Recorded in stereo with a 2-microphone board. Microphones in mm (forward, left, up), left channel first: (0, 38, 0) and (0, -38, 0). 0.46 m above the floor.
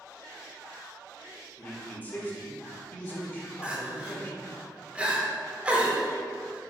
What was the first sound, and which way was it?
A man speaking, 25° left (ahead or behind).